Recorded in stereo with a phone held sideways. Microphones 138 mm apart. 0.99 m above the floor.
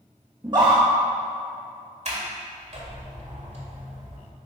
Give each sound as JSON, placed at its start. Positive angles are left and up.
{"t": 0.4, "sound": "a scream", "side_deg": -35, "distance_m": 1.5}
{"t": 2.0, "sound": "a sliding door", "side_deg": -55, "distance_m": 1.7}